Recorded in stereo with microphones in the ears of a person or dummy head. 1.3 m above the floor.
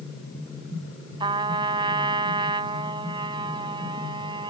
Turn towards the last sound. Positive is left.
turn(degrees=-30)  # may be behind; listen again after turning